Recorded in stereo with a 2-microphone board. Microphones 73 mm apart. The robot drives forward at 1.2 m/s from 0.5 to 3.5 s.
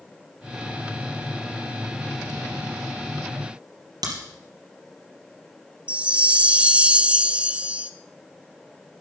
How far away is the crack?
About 3.5 m.